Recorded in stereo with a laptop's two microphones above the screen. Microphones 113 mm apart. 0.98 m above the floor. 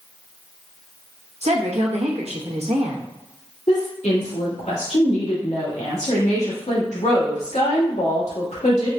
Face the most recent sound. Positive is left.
turn(degrees=75)  # may be behind; listen again after turning